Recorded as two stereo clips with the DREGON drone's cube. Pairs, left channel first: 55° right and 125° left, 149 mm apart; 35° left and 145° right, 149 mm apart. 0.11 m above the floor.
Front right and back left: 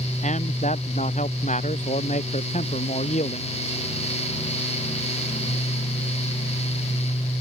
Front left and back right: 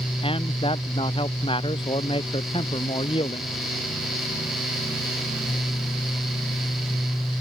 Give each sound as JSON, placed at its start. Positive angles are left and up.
{"t": 0.2, "sound": "a man speaking", "azimuth_deg": -20}